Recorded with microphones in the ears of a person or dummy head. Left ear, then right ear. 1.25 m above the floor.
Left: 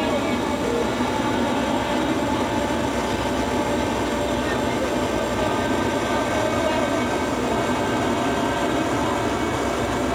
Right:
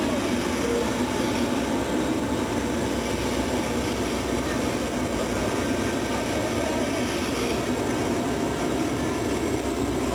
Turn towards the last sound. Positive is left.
turn(degrees=40)  # may be behind; listen again after turning